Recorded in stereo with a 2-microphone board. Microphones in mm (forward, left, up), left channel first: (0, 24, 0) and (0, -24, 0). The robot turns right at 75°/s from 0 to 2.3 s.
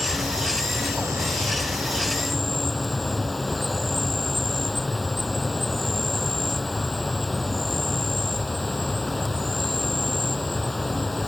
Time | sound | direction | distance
0.0 | an insect | 175° right | ?